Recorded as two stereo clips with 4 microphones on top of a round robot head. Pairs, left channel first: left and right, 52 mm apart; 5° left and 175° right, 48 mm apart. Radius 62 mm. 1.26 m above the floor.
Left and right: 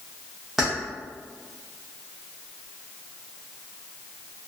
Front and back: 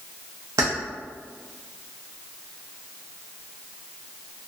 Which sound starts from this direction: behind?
Keys jangling, at 0.6 s.